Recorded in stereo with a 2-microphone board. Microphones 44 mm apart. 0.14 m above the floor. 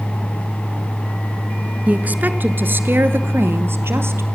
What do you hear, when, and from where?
1.9 s a woman speaking: 35° right (ahead or behind), 1.5 m; by 4.2 s 70° right (ahead or behind), 3.5 m